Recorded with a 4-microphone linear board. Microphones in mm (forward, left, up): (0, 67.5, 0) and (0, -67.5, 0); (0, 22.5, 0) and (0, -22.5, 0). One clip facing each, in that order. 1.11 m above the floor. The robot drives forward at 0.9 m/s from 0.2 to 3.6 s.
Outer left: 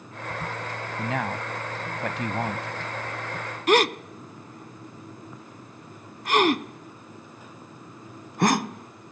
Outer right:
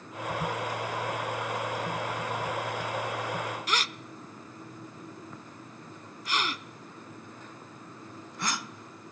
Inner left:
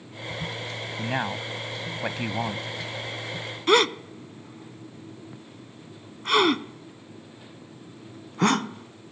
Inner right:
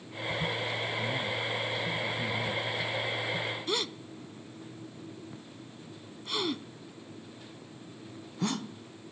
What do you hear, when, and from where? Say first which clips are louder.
1.0 s a man speaking: outer left 3 dB, inner left 3 dB; 85° left; by 2.7 s 80° left
3.7 s a gasp: outer left 13 dB, inner left 13 dB; 60° left (ahead or behind)